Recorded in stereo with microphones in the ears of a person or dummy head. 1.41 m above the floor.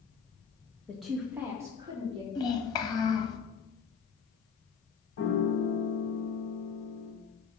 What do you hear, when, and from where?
0.9 s a woman speaking: 5° left (ahead or behind), 2 m; by 2.2 s 25° right (ahead or behind), 3 m
2.4 s a child speaking: 20° left (ahead or behind), 1.6 m
5.2 s a piano: 70° left (ahead or behind), 2.5 m